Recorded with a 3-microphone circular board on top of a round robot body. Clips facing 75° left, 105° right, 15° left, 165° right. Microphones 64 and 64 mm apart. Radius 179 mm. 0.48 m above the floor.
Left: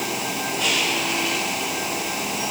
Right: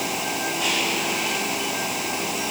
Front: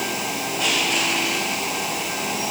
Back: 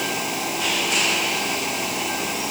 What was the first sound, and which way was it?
Only background noise.